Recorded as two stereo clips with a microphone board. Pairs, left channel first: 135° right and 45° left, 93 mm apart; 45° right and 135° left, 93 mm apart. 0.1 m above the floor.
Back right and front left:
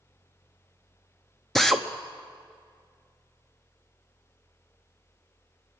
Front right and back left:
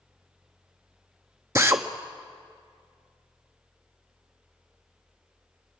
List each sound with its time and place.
1.6 s a drill: 140° left, 0.6 m